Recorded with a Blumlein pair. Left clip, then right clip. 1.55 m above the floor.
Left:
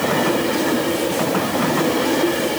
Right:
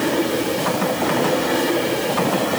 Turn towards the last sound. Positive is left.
No sound to turn to.